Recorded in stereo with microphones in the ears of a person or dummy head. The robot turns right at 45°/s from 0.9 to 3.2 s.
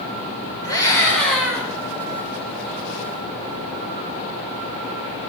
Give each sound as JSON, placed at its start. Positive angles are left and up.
{"t": 0.6, "sound": "a scream", "azimuth_deg": 160, "distance_m": 7.5}